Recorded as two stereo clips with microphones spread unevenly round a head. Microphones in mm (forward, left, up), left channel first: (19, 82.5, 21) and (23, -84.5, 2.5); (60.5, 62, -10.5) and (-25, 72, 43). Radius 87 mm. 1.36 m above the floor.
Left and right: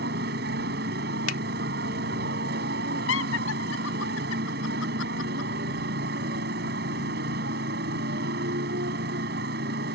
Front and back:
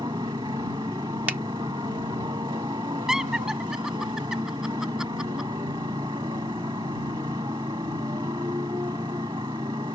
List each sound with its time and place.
0.0 s a motorcycle: 130° right
1.3 s a finger snap: 100° left
3.1 s laughter: 90° left